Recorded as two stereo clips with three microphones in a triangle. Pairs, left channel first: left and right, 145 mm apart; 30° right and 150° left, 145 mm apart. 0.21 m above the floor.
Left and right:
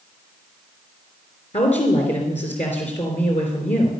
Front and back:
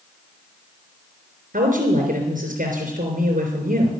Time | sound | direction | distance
1.5 | a woman speaking | 130° left | 3.5 m